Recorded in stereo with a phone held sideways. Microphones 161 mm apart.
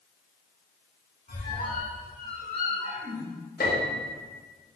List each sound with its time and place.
1.3 s a squeak: 60° left (ahead or behind), 1.9 m
3.6 s a piano: 65° left (ahead or behind), 0.6 m